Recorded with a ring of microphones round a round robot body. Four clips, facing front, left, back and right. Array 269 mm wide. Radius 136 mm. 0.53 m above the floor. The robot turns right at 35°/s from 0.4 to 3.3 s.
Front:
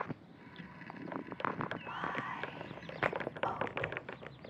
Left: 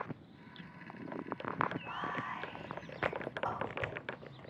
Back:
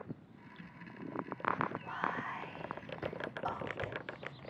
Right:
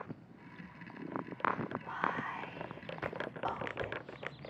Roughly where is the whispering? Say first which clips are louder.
Right 3 dB, back 1 dB; behind right.